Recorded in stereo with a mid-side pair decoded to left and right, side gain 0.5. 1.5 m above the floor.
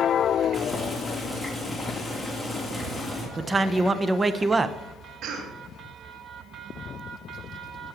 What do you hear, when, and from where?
0.5 s boiling: 10° left, 3.5 m
3.4 s a man speaking: 20° right, 1.0 m
5.2 s a cough: 65° right, 3 m